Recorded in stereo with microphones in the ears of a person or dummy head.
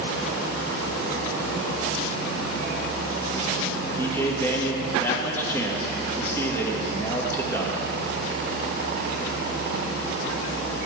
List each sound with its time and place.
4.0 s a man speaking: 15° left (ahead or behind), 1.6 m